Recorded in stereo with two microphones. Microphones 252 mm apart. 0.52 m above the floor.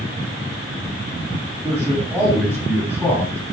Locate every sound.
1.6 s a man speaking: 10° right (ahead or behind), 4 m; by 3.5 s 5° right (ahead or behind), 5 m